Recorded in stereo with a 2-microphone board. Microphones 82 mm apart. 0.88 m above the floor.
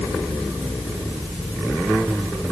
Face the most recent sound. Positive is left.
No sound to turn to.